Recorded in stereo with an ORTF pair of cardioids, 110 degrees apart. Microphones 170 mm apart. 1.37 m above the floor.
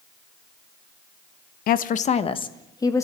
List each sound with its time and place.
1.7 s a woman speaking: 60° left, 1.2 m; by 3.0 s 15° left, 2.5 m